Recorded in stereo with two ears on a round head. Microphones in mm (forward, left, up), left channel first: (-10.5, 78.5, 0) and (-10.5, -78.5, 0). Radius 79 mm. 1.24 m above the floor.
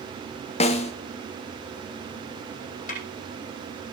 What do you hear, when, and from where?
0.6 s a snare drum: 40° left (ahead or behind), 2 m
2.9 s a snare drum: 45° left (ahead or behind), 9.5 m